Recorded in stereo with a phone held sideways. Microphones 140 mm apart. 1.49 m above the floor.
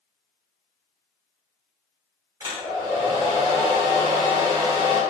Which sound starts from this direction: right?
A hair dryer, at 2.4 s.